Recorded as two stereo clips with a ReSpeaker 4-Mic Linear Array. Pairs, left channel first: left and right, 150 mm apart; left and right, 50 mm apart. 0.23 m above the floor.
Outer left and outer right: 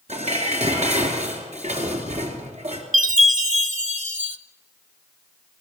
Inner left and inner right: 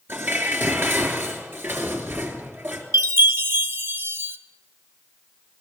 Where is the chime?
55° right (ahead or behind), 0.8 m.